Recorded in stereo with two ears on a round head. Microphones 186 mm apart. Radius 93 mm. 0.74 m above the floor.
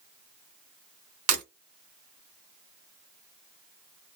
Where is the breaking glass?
80° right, 1.3 m.